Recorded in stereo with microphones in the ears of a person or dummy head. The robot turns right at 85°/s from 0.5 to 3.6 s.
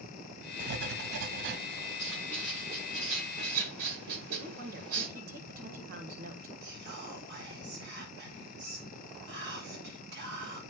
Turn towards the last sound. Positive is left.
turn(degrees=-60)  # may be behind; listen again after turning